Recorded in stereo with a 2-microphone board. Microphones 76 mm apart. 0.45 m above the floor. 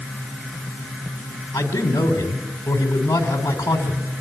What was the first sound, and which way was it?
A man speaking, 40° left (ahead or behind).